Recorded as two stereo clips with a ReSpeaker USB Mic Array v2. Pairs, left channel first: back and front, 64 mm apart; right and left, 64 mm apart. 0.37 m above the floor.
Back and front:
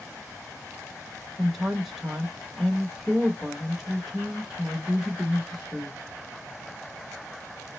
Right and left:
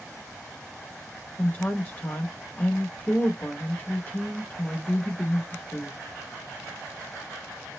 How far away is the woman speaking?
About 0.9 m.